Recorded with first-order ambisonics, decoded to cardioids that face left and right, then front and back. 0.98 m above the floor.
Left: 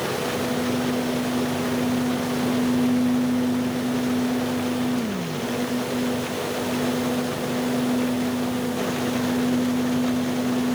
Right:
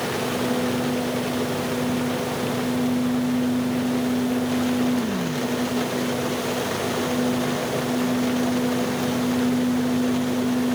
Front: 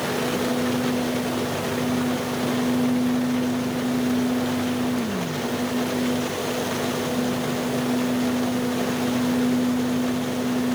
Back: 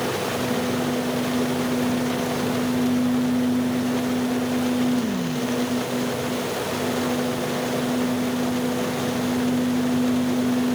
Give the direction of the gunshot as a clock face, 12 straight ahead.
No gunshot in this recording.